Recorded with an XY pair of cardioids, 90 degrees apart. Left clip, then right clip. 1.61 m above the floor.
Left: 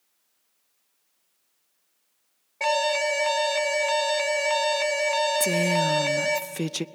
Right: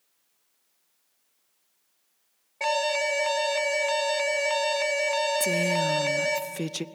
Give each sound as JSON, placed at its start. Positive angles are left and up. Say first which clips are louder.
{"t": 2.6, "sound": "an alarm", "louder": "left 2 dB", "azimuth_deg": 15, "distance_m": 1.6}
{"t": 5.4, "sound": "a woman speaking", "louder": "left 2 dB", "azimuth_deg": 25, "distance_m": 0.6}